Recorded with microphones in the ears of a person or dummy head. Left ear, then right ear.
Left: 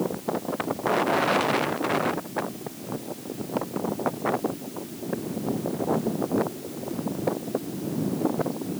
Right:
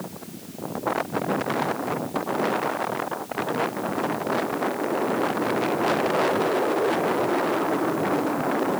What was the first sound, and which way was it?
Only background noise.